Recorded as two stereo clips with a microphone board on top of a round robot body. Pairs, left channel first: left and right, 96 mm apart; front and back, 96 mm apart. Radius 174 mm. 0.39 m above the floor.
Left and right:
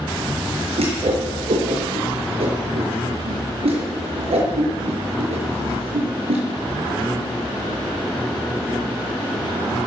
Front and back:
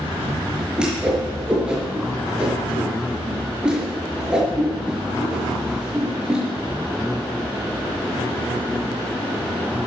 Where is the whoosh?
100° right, 5.5 m.